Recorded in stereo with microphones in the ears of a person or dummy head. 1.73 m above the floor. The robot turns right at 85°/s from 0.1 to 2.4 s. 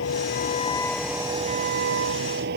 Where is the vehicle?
100° left; by 2.6 s 65° right.